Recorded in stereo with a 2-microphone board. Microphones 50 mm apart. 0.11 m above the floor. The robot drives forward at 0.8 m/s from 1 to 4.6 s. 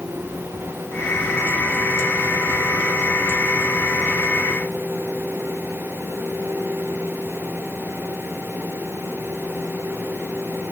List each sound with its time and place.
Only background noise.